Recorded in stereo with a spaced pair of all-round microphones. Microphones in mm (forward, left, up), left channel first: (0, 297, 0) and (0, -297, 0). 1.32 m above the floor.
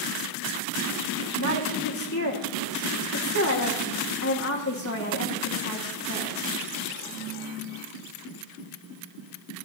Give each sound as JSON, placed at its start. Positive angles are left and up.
{"t": 1.4, "sound": "a woman speaking", "side_deg": 25, "distance_m": 1.6}